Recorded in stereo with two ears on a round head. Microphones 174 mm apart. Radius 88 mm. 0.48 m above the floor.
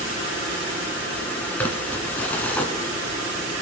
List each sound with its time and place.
1.6 s crumpling: 10° left (ahead or behind), 1.6 m